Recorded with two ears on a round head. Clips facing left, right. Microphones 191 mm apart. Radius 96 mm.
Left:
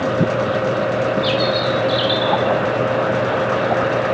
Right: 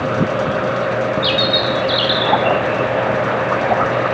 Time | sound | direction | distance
1.2 | a bird | 20° right (ahead or behind) | 1.9 m